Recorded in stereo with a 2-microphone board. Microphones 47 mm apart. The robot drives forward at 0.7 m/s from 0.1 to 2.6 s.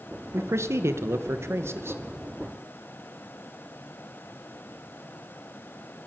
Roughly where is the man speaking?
Right.